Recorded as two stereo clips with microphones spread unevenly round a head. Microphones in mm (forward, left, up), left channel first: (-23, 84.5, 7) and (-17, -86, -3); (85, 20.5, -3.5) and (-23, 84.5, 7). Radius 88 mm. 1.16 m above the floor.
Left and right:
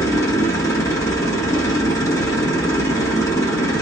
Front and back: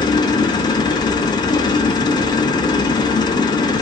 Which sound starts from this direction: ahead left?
A machine running, at 0.0 s.